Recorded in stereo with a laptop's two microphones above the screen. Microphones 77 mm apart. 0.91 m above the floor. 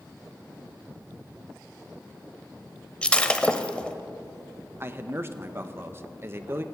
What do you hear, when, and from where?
3.0 s breaking glass: 15° left (ahead or behind), 0.7 m
4.8 s a man speaking: 30° right (ahead or behind), 0.7 m